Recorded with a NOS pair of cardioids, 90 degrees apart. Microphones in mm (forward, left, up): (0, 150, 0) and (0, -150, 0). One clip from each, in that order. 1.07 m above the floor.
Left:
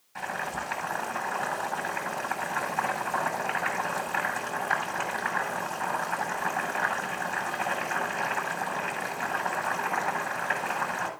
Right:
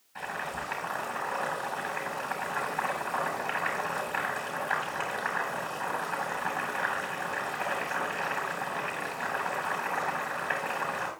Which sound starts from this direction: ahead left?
Boiling, at 0.1 s.